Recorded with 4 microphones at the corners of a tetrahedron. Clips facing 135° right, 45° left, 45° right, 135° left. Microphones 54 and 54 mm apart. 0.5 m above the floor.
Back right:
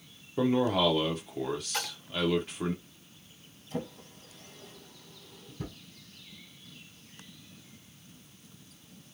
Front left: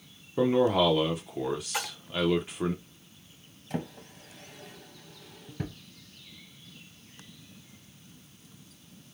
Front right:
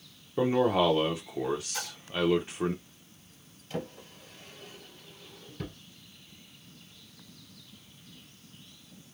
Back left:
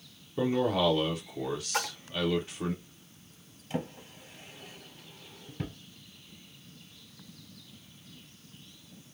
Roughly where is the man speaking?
Ahead.